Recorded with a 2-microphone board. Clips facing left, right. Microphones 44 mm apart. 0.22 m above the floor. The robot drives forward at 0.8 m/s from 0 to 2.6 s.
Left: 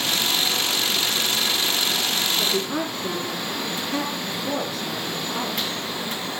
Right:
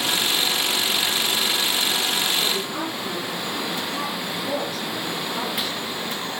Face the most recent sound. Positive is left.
turn(degrees=5)  # may be behind; listen again after turning